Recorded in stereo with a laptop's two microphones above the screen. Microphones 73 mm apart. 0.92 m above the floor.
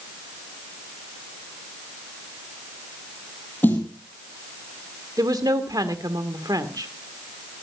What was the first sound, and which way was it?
A snare drum, 25° left (ahead or behind).